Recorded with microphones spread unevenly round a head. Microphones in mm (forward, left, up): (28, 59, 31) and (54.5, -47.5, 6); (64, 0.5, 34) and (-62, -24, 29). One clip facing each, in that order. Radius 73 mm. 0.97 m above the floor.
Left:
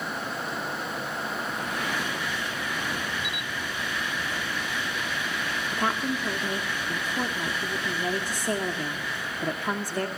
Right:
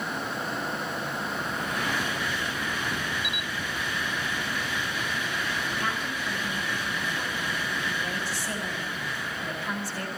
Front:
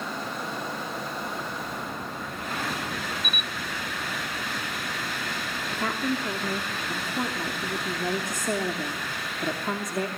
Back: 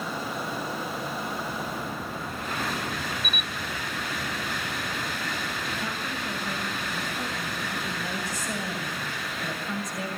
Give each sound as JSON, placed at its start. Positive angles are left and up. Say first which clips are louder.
{"t": 3.2, "sound": "a camera shutter", "louder": "even, even", "azimuth_deg": -45, "distance_m": 0.6}
{"t": 5.7, "sound": "a woman speaking", "louder": "left 4 dB, front 5 dB", "azimuth_deg": 55, "distance_m": 2.5}